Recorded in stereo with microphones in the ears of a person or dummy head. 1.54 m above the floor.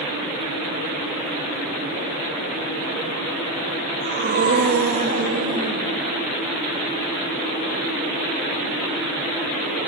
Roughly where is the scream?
Right.